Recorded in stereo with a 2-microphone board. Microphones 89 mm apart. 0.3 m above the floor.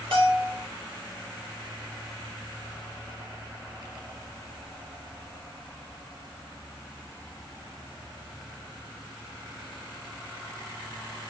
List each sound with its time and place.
0.1 s a bell: 75° right (ahead or behind), 4 m